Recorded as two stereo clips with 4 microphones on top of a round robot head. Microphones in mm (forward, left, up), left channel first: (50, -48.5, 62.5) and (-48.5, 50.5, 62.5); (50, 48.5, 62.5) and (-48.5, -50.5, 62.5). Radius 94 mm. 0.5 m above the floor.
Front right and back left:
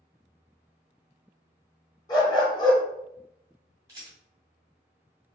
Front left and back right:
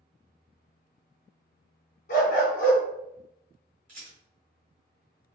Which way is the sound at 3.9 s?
155° right.